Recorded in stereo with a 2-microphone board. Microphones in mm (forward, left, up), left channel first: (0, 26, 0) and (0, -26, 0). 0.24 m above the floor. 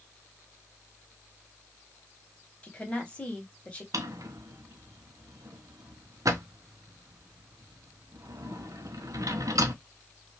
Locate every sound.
2.6 s a woman speaking: 25° left (ahead or behind), 1.0 m
3.9 s a drawer: 85° right, 0.5 m